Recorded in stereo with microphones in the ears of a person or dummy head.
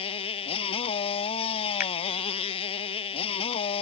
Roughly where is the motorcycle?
Left.